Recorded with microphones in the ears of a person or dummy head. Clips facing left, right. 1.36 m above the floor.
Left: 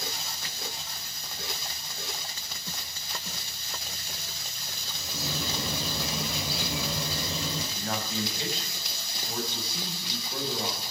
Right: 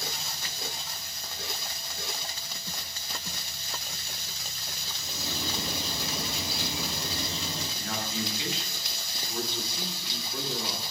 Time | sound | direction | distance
4.9 | a bird | 70° left (ahead or behind) | 5 m
7.8 | a man speaking | 35° left (ahead or behind) | 7 m